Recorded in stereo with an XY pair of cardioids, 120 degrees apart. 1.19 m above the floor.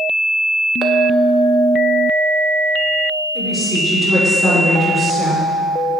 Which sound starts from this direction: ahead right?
A clink, at 0.8 s.